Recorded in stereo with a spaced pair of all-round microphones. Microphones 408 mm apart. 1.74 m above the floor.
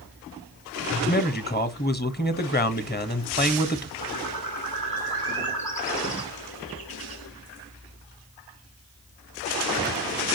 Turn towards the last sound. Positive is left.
turn(degrees=60)  # may be behind; listen again after turning